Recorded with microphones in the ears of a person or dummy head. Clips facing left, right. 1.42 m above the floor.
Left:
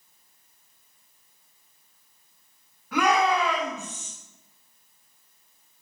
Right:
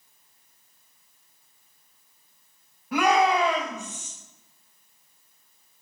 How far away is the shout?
About 2 m.